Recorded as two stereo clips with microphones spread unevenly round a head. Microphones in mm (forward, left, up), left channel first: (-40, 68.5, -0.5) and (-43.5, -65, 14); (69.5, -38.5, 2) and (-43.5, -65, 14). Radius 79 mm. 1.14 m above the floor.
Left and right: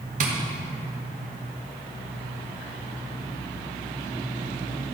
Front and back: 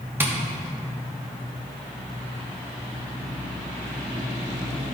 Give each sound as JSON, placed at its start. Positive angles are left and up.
{"t": 0.2, "sound": "tapping", "azimuth_deg": -95, "distance_m": 1.0}